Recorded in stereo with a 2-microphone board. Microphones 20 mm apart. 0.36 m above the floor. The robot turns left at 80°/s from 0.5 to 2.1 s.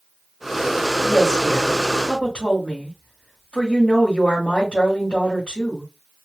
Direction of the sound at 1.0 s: Straight behind.